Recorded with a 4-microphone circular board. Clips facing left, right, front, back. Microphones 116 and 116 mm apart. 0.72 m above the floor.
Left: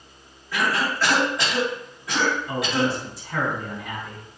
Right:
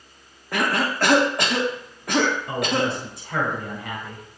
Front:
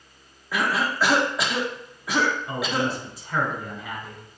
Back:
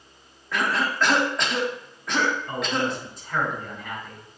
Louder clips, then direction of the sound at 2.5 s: Even, even; 85° right.